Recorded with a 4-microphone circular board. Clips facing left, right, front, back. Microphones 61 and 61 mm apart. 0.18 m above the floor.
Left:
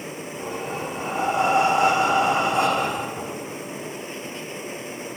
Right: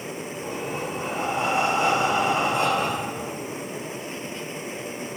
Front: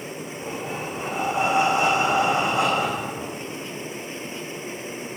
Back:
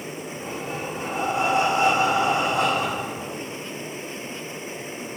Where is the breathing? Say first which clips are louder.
Left 1 dB, front 1 dB; 70° left, 4.5 m.